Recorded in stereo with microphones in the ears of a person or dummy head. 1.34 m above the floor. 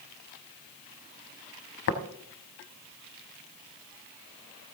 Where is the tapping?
55° left (ahead or behind), 1.2 m.